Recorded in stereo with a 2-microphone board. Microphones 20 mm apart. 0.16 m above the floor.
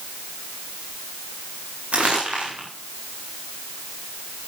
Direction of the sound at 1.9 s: 85° right.